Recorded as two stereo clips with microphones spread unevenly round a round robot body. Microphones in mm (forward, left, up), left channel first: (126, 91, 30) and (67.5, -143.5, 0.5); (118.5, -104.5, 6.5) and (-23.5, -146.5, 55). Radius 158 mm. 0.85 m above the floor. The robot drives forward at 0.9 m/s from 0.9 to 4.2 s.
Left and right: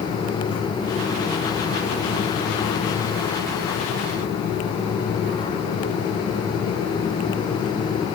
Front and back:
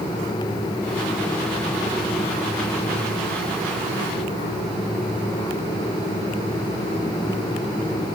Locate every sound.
Only background noise.